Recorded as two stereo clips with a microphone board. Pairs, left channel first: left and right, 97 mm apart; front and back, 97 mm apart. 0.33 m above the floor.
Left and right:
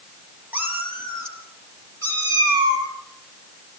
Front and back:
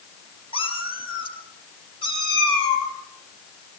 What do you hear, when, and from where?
0.5 s a cat meowing: 15° right, 4 m; by 2.9 s 35° right, 7 m